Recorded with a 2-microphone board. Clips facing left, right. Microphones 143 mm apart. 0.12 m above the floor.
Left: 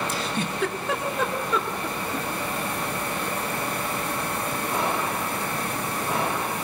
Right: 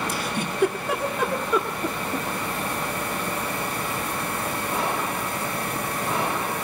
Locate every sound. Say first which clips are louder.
0.1 s a giggle: even; 10° right (ahead or behind), 1.8 m